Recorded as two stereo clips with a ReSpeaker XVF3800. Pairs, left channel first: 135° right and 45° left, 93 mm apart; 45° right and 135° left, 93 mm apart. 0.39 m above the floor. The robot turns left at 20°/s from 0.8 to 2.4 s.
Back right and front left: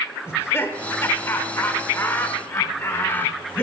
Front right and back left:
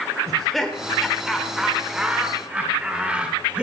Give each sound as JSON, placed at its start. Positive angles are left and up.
{"t": 0.3, "sound": "laughter", "azimuth_deg": -130, "distance_m": 0.9}